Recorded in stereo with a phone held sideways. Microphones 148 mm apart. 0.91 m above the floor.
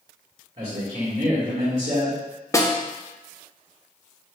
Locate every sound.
0.6 s a man speaking: 40° right (ahead or behind), 1.8 m
2.5 s a snare drum: 20° left (ahead or behind), 0.5 m